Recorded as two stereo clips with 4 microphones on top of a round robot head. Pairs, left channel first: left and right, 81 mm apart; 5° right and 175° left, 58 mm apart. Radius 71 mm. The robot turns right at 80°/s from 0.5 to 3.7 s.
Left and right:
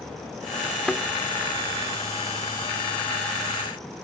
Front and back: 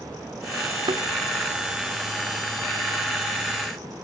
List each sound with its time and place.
0.8 s a thud: 175° left, 0.8 m; by 1.0 s 170° right, 0.8 m